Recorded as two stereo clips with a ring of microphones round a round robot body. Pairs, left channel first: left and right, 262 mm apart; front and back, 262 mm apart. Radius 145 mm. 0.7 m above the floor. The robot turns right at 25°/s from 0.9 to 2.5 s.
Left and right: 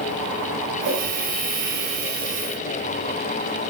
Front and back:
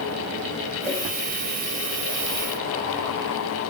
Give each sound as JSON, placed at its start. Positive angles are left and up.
{"t": 0.8, "sound": "a whoosh", "azimuth_deg": -80, "distance_m": 4.5}